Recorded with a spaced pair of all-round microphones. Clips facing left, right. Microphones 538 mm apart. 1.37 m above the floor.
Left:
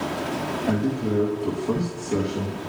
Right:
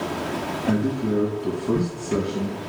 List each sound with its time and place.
0.7 s a man speaking: 25° right (ahead or behind), 1.2 m